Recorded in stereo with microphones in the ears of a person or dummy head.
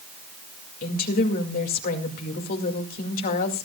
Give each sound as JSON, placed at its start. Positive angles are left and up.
{"t": 0.8, "sound": "a woman speaking", "side_deg": 50, "distance_m": 2.0}